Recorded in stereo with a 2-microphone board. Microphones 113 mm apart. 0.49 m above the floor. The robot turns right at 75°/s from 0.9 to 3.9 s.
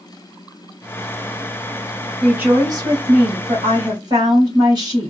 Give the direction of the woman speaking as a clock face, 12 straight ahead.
6 o'clock.